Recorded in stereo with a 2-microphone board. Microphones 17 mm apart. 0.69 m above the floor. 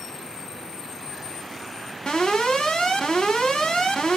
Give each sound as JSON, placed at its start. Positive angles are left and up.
{"t": 2.1, "sound": "an alarm", "side_deg": 65, "distance_m": 3.5}